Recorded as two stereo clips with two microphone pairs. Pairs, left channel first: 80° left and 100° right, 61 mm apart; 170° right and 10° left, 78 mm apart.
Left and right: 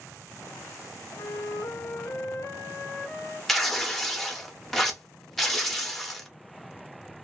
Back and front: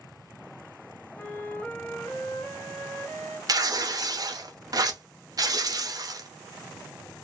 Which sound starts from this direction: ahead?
Tearing paper, at 3.5 s.